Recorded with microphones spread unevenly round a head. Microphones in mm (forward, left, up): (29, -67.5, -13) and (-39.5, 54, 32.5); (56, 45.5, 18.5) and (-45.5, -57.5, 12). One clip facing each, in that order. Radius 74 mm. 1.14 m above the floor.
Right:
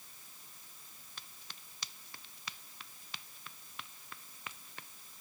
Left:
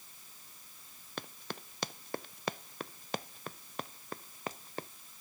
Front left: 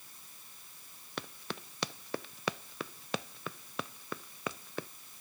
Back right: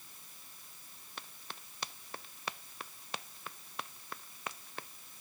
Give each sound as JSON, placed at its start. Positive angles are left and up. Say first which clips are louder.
{"t": 1.2, "sound": "running footsteps", "louder": "left 16 dB, front left 9 dB", "azimuth_deg": 80}